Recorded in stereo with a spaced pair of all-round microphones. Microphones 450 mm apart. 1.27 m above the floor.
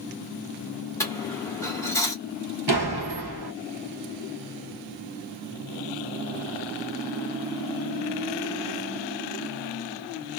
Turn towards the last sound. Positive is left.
turn(degrees=-60)  # may be behind; listen again after turning